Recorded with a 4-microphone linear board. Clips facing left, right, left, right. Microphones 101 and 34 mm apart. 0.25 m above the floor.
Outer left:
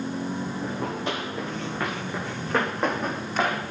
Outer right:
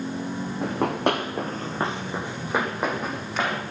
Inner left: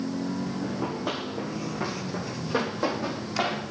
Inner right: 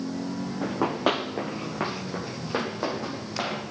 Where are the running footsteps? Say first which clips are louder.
Outer right 10 dB, inner right 10 dB; 80° right, 1.6 m; by 3.6 s centre (ahead or behind), 3.5 m.